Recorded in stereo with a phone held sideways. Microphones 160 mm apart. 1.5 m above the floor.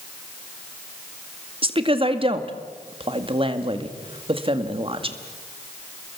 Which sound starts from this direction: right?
A woman speaking, at 1.6 s.